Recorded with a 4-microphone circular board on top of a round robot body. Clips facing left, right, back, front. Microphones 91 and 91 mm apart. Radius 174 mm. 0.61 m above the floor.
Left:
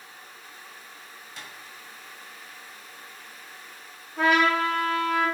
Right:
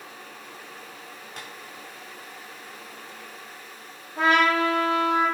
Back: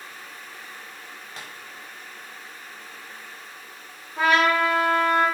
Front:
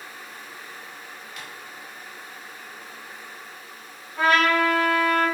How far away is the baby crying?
No baby crying in this recording.